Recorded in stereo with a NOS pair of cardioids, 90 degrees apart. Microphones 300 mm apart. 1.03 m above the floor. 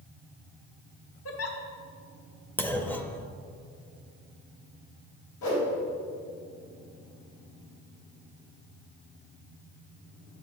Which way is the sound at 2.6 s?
5° left.